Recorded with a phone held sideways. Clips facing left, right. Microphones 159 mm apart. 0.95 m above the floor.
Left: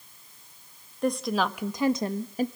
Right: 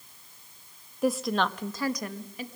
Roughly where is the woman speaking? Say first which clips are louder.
Even; centre.